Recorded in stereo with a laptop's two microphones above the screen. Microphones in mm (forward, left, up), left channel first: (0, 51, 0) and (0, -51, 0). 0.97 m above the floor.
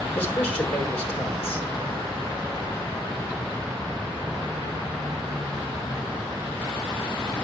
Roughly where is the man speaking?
Left.